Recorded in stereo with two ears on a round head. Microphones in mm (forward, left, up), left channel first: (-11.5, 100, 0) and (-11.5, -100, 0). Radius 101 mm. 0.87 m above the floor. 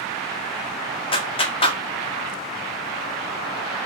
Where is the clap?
25° left (ahead or behind), 2 m.